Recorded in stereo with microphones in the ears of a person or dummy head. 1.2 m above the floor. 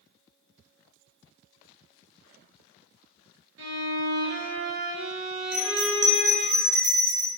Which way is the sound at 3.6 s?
75° right (ahead or behind).